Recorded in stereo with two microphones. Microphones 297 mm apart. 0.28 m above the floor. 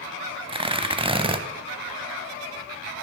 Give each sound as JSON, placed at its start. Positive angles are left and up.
{"t": 0.5, "sound": "tearing paper", "side_deg": -20, "distance_m": 0.7}